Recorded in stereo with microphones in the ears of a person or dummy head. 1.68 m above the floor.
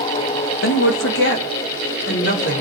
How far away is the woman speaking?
About 1.7 m.